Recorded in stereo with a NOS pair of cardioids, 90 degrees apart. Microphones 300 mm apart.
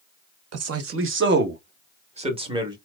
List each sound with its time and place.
0.5 s a man speaking: 55° right, 1.1 m; by 2.8 s 15° right, 1.8 m